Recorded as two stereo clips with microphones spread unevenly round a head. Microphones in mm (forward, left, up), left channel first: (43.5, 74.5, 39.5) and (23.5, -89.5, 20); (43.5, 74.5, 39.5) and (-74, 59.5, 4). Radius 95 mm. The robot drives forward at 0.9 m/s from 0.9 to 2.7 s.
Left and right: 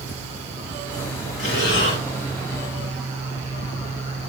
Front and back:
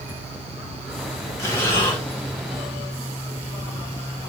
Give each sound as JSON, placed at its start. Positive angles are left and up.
{"t": 1.4, "sound": "breathing", "azimuth_deg": 75, "distance_m": 6.0}